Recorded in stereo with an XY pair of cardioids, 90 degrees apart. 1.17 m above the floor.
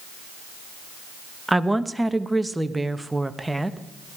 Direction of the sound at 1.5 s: 10° right.